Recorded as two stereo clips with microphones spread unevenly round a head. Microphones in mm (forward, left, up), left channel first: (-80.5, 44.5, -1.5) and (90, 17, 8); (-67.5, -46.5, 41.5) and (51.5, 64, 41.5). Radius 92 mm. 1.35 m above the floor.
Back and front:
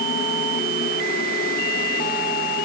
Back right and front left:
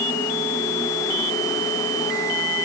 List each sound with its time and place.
Only background noise.